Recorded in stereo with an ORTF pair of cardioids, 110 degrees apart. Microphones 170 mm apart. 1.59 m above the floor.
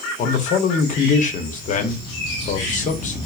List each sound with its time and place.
0.2 s a man speaking: 50° left, 0.8 m